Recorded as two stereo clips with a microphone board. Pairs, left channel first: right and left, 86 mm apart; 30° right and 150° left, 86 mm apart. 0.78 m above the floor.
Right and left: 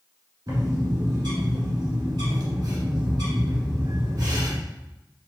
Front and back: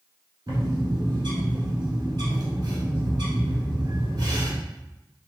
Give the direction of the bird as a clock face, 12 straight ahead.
8 o'clock.